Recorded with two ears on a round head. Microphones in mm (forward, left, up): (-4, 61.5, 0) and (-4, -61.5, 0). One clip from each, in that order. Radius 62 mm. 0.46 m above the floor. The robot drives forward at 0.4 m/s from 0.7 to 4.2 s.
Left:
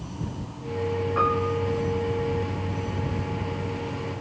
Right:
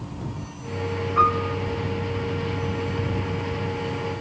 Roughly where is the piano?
Left.